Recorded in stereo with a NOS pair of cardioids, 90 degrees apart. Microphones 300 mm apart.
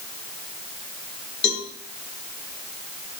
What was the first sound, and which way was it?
A cowbell, 40° left.